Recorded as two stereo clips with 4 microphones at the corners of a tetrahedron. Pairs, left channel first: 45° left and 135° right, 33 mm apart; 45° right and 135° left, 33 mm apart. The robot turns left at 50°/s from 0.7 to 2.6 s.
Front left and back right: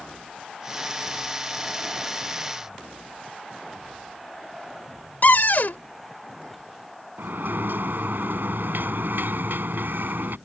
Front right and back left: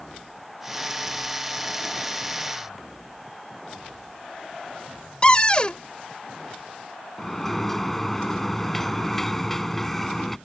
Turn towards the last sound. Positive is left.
turn(degrees=-125)